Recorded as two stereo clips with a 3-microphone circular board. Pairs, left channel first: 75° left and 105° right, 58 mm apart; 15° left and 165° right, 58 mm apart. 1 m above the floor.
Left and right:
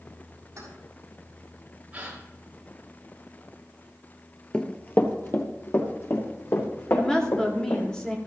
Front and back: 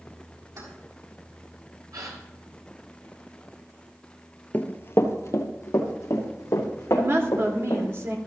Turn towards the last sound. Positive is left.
turn(degrees=150)